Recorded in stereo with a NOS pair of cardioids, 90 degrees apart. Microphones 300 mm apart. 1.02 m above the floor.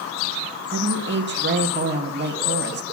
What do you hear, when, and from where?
0.7 s a woman speaking: 35° right, 1.3 m